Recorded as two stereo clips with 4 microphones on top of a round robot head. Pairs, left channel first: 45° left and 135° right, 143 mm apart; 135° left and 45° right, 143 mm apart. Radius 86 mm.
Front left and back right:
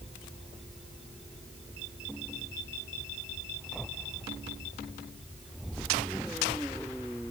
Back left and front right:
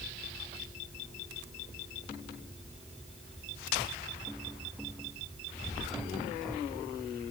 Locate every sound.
Only background noise.